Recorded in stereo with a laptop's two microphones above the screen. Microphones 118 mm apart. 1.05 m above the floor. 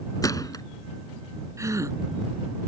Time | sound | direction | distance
0.2 | a gunshot | 30° left (ahead or behind) | ?
1.6 | a gasp | 25° right (ahead or behind) | ?